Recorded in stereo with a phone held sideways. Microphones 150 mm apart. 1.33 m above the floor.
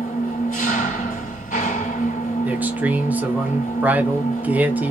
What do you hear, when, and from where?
0.0 s an engine running: 65° left (ahead or behind), 2.5 m
2.5 s a man speaking: 10° right (ahead or behind), 1.0 m